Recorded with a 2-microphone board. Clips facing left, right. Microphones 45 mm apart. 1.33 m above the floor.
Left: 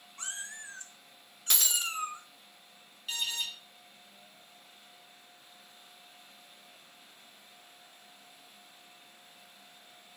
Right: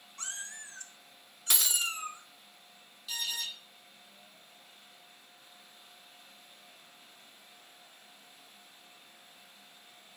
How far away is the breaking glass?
About 0.8 m.